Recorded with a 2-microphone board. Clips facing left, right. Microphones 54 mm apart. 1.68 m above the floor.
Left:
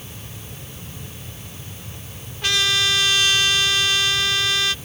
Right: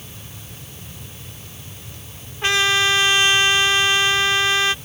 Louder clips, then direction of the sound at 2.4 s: Right 3 dB; 30° right (ahead or behind).